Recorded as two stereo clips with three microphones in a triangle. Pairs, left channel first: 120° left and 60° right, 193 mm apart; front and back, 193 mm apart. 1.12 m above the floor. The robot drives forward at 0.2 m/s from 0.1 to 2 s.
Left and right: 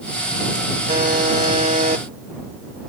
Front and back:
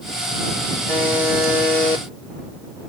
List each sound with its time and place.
0.9 s a buzzer: 100° right, 3 m; by 2.0 s 105° right, 3 m